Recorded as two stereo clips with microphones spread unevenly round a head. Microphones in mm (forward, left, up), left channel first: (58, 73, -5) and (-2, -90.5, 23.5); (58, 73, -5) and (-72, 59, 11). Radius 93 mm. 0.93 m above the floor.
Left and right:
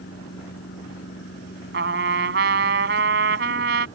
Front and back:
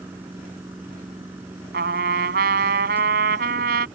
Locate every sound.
0.0 s a machine running: 110° left
1.7 s a trumpet: 150° right